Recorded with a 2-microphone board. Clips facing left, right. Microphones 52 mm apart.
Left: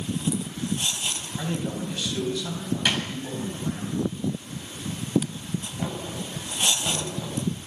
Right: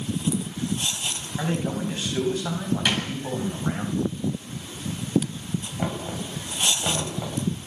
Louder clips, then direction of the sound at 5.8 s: Right 2 dB; 25° right (ahead or behind).